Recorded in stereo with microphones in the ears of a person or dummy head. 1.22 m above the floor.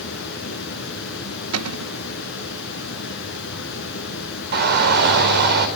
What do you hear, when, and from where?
0.0 s running water: 65° left (ahead or behind), 5.5 m
1.5 s a cupboard door: 80° right, 1.1 m
4.5 s a shout: 55° right (ahead or behind), 5 m